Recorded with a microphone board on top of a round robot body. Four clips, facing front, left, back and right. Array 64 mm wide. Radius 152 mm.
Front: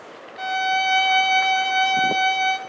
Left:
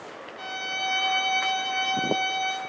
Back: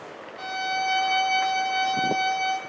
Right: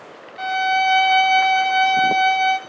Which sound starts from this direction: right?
A violin, at 0.4 s.